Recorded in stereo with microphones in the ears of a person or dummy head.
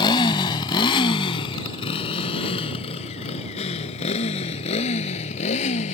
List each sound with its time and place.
0.0 s a motorcycle: 25° left (ahead or behind); by 5.9 s 40° left (ahead or behind)